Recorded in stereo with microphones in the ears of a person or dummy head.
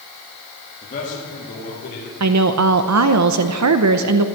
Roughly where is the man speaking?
Left.